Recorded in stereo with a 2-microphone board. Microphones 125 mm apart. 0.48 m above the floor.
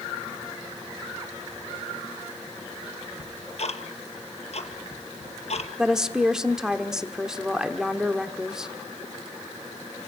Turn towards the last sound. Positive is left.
turn(degrees=-5)  # may be behind; listen again after turning